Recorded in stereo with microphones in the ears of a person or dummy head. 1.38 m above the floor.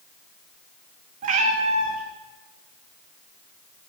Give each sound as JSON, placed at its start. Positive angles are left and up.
{"t": 1.2, "sound": "a cat meowing", "side_deg": -35, "distance_m": 1.1}